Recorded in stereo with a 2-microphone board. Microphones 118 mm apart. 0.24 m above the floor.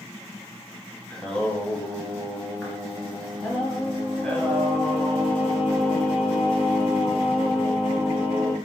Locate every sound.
1.1 s singing: 5° left (ahead or behind), 1.2 m